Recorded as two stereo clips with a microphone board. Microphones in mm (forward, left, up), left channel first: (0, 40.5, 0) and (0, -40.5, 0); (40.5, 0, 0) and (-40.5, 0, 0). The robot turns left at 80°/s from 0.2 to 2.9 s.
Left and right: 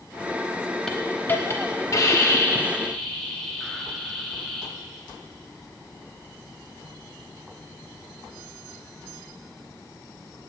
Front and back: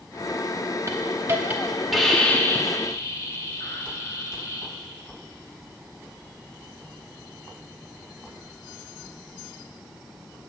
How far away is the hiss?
About 0.9 m.